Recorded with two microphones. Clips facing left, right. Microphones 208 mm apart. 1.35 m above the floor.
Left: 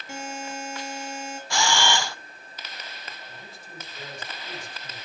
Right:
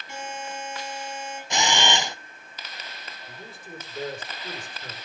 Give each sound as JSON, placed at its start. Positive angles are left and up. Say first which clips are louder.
{"t": 0.1, "sound": "a buzzer", "louder": "left 1 dB", "side_deg": 50, "distance_m": 6.5}
{"t": 1.5, "sound": "a camera shutter", "louder": "even", "side_deg": -20, "distance_m": 0.7}
{"t": 3.3, "sound": "a man speaking", "louder": "right 4 dB", "side_deg": -55, "distance_m": 4.5}